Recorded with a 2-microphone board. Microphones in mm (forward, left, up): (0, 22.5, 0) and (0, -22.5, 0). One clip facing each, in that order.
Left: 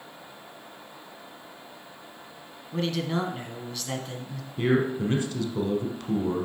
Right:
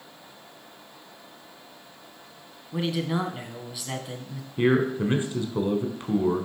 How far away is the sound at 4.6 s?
About 1.4 m.